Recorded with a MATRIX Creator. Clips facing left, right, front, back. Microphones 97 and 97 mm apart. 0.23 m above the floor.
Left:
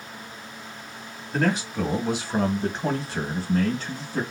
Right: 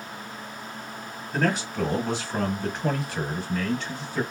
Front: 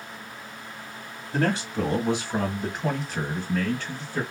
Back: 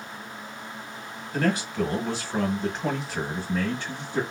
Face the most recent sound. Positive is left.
turn(degrees=120)